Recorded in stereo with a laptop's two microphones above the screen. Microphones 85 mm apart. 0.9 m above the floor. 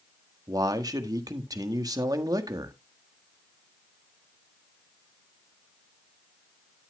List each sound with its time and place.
0.5 s a man speaking: 45° right (ahead or behind), 1.5 m